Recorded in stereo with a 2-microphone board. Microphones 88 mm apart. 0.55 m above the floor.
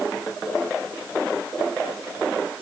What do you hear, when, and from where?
Only background noise.